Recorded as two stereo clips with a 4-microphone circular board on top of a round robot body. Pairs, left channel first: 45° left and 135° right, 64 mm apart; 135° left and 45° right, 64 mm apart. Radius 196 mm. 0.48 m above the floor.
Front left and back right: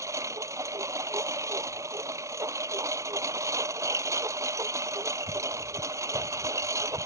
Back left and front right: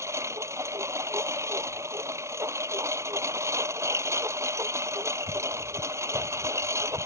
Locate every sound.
0.0 s a lawn mower: 90° right